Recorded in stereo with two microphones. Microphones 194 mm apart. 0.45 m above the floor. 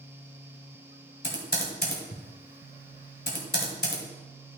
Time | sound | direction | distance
1.2 | typing on a keyboard | 65° left (ahead or behind) | 1.9 m